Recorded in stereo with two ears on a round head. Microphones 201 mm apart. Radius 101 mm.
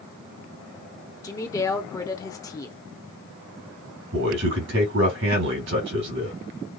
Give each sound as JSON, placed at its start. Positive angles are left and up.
{"t": 1.2, "sound": "a woman speaking", "side_deg": 15, "distance_m": 0.9}
{"t": 4.1, "sound": "a man speaking", "side_deg": -60, "distance_m": 3.0}